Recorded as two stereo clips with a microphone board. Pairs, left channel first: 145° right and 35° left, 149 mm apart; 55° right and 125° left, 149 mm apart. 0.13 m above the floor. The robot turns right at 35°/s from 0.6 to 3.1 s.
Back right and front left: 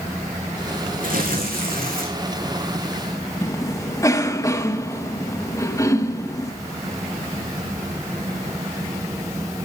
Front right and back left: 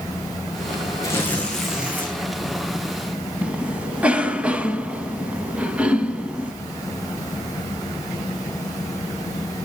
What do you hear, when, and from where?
1.0 s tearing paper: 10° left, 2.5 m; by 2.1 s 50° left, 2.5 m
3.4 s a cough: 165° right, 1.1 m